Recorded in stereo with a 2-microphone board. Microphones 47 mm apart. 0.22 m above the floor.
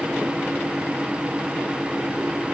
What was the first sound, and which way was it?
Only background noise.